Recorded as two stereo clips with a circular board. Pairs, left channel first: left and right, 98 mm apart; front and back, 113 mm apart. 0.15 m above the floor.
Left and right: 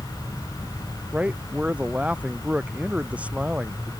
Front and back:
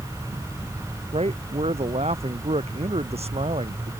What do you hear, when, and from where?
1.1 s a man speaking: 165° right